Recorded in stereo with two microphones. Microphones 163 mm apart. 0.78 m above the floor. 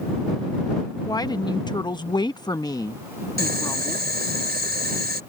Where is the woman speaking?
20° left (ahead or behind); by 4.1 s 15° left (ahead or behind).